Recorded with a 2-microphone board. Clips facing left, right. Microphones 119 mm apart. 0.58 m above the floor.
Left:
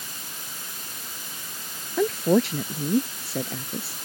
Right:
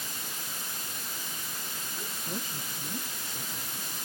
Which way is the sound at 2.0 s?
80° left.